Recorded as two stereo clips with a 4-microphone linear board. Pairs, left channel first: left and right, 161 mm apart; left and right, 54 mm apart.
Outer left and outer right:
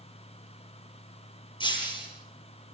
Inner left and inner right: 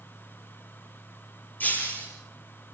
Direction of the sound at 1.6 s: 30° left (ahead or behind).